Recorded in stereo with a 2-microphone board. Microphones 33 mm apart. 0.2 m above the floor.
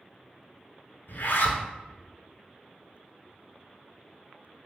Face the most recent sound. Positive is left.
turn(degrees=75)  # may be behind; listen again after turning